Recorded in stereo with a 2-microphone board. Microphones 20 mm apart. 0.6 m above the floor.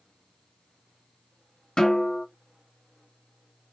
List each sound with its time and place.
1.8 s a snare drum: 50° left (ahead or behind), 1.7 m